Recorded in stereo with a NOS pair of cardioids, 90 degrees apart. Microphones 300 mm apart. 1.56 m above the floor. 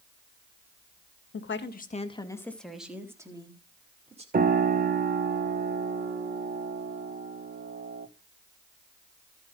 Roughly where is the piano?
Ahead right.